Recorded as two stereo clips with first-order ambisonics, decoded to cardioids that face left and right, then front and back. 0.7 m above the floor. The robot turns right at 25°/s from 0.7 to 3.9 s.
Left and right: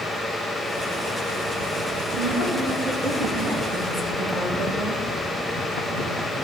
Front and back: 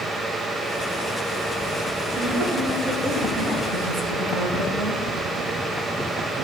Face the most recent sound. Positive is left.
turn(degrees=-165)